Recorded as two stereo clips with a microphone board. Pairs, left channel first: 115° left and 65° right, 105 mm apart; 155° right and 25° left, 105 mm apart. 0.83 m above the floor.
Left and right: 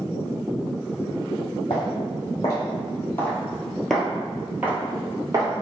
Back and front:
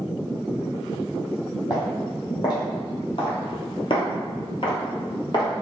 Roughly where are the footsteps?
Behind left.